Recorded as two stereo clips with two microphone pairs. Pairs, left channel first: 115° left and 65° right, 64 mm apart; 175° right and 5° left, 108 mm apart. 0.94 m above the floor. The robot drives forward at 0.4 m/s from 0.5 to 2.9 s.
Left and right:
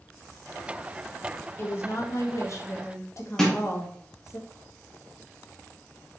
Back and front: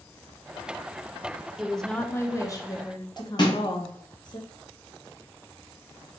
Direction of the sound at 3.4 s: 160° right.